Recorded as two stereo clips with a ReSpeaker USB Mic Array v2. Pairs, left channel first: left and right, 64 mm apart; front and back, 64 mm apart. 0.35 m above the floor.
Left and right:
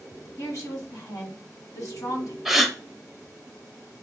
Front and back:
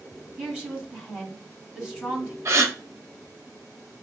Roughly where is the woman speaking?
Left.